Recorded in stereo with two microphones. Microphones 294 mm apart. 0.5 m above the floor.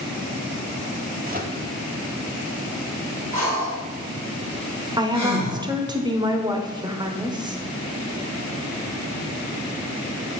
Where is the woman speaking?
15° right (ahead or behind), 1.2 m.